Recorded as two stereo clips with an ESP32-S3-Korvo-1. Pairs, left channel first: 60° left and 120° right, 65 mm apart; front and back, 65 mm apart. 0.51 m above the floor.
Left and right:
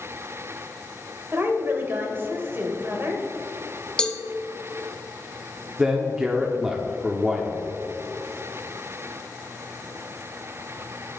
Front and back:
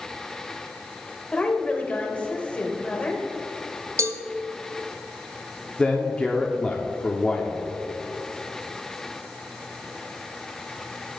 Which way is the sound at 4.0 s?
140° left.